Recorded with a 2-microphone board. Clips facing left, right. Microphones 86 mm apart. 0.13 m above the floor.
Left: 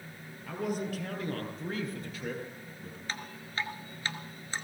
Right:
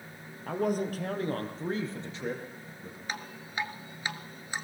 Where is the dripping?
15° right (ahead or behind), 1.2 m.